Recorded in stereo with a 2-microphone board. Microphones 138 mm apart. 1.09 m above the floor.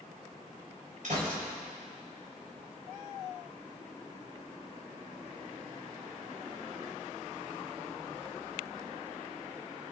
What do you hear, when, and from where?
1.0 s a gunshot: 75° right (ahead or behind), 4 m